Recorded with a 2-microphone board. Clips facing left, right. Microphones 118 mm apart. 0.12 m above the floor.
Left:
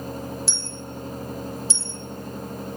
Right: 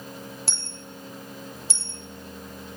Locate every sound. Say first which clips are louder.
0.5 s a dropped coin: left 6 dB; 65° right (ahead or behind), 1.0 m